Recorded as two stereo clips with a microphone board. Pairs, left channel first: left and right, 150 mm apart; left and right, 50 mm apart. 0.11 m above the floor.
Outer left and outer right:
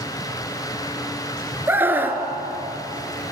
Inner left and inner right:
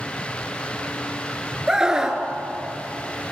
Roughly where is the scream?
Centre.